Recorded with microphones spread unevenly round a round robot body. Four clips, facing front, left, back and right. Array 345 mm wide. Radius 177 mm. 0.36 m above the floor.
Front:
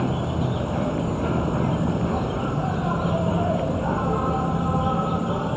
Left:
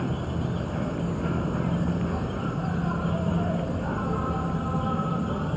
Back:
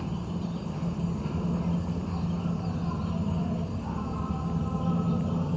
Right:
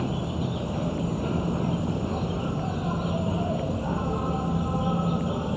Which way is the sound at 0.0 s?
5° right.